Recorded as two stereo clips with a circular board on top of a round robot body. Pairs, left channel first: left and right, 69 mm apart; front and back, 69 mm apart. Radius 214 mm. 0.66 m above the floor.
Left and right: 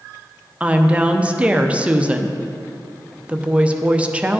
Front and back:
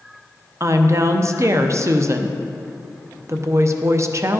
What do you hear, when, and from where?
0.6 s a woman speaking: 160° right, 0.8 m